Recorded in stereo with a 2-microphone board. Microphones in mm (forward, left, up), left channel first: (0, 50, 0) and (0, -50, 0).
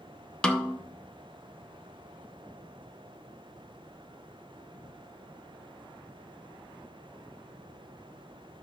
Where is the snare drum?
10° left (ahead or behind), 0.8 m.